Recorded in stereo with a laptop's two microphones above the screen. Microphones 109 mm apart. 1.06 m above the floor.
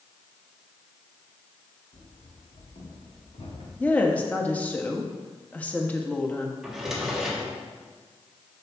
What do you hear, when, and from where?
1.9 s running footsteps: 45° left (ahead or behind), 2 m; by 3.7 s 70° left (ahead or behind), 3.5 m
3.8 s a woman speaking: 15° left (ahead or behind), 1.4 m
6.6 s a drawer: 5° right (ahead or behind), 1.2 m